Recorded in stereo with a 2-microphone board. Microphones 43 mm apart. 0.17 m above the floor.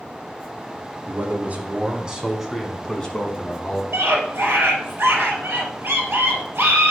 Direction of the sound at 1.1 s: 45° right (ahead or behind).